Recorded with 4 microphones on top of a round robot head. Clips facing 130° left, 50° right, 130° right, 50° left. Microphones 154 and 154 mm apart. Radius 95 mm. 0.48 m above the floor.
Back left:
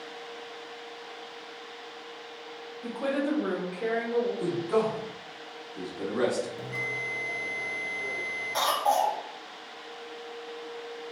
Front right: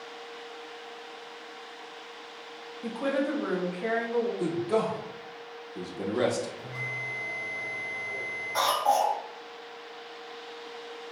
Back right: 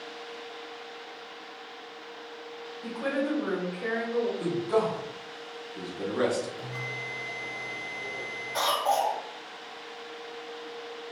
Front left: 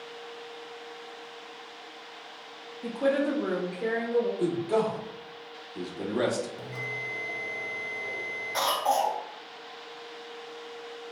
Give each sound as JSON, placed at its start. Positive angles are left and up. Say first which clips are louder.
{"t": 2.8, "sound": "a woman speaking", "louder": "even, front left 4 dB", "azimuth_deg": 10, "distance_m": 0.7}
{"t": 4.4, "sound": "a man speaking", "louder": "back left 1 dB, even", "azimuth_deg": -5, "distance_m": 1.0}
{"t": 6.6, "sound": "a bell", "louder": "back left 4 dB, even", "azimuth_deg": 120, "distance_m": 0.6}
{"t": 8.5, "sound": "a cough", "louder": "front right 1 dB, even", "azimuth_deg": 90, "distance_m": 1.5}